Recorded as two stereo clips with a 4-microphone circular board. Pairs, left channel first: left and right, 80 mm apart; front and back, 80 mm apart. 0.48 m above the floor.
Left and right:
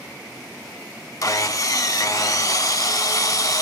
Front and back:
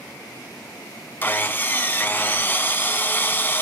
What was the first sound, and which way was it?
Sawing, 60° left.